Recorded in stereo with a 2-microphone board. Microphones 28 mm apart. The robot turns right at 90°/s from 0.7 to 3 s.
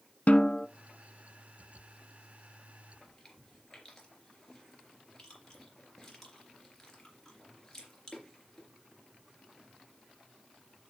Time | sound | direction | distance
0.3 | a snare drum | 50° left (ahead or behind) | 0.7 m
3.0 | chewing | 15° left (ahead or behind) | 3.5 m